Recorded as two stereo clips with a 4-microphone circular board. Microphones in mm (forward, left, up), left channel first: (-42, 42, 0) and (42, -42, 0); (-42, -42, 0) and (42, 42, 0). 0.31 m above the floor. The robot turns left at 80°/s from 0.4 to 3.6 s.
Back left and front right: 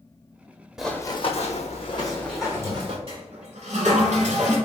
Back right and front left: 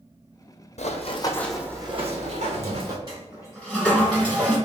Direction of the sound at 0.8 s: 130° right.